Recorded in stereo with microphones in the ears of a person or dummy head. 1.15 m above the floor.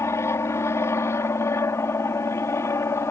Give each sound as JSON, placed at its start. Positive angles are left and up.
{"t": 0.0, "sound": "an aircraft", "side_deg": 15}